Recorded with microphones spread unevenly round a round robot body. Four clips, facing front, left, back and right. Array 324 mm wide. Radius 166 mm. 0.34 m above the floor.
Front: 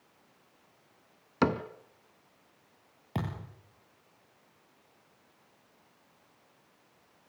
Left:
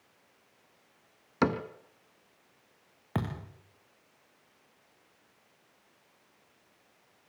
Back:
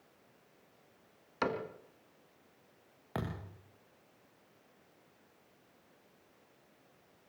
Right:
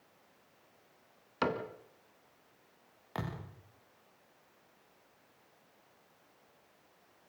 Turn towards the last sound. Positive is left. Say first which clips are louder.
# left 6 dB, front 3 dB
turn(degrees=65)